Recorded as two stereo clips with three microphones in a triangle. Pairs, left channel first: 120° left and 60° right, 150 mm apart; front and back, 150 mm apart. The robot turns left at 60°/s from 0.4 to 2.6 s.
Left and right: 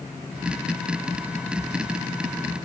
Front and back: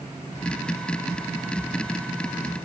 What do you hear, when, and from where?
Only background noise.